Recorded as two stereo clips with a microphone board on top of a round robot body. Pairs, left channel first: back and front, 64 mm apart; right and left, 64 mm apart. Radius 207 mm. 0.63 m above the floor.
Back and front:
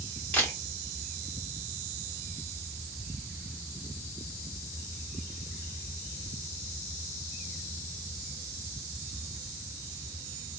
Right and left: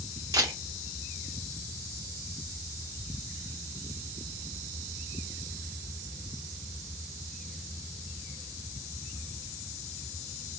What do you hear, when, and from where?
0.3 s a camera shutter: 110° left, 0.5 m